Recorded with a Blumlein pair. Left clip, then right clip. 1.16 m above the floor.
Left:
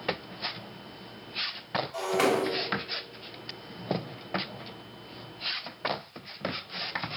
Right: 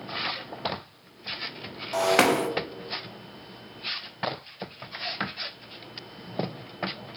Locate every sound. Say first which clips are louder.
1.9 s breaking glass: right 6 dB; 40° right, 0.9 m